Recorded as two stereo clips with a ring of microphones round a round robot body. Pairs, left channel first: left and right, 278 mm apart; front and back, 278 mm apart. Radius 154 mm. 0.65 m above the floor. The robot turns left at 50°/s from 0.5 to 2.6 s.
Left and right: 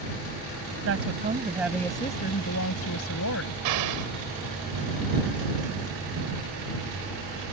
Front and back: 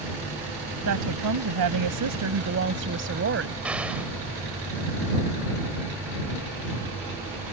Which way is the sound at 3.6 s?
95° right.